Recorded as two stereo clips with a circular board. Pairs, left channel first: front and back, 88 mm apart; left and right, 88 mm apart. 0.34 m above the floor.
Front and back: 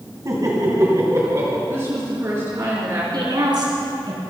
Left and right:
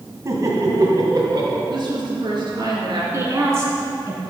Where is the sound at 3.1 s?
145° right, 3.5 m.